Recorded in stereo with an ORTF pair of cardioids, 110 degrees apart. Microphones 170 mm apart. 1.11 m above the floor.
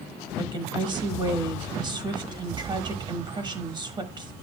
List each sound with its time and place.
0.4 s a woman speaking: 30° right, 1.2 m